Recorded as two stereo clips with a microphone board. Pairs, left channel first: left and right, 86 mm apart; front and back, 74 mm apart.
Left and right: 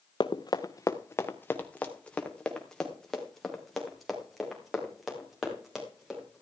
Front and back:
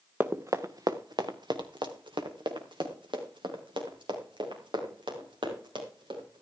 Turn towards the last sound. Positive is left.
turn(degrees=-175)